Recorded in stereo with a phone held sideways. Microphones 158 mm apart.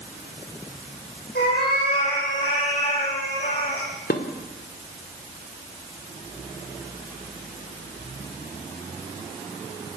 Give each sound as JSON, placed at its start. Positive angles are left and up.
{"t": 1.4, "sound": "a cat meowing", "side_deg": 85, "distance_m": 9.5}
{"t": 4.1, "sound": "dishes clattering", "side_deg": 70, "distance_m": 2.0}